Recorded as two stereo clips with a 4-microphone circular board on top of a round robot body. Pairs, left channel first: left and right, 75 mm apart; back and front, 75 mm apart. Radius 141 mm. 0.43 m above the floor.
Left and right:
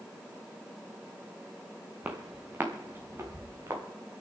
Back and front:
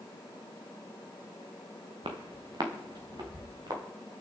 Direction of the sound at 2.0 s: 20° right.